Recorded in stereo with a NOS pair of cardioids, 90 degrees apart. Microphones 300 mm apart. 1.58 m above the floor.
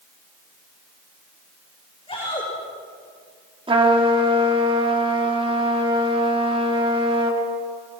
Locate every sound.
2.1 s a shout: 20° left, 6 m
3.7 s a trumpet: 15° right, 4.5 m